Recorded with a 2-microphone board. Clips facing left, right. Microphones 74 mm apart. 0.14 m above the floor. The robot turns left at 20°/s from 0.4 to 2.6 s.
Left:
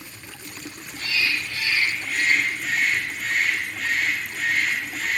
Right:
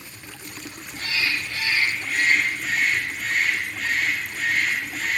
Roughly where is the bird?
Behind right.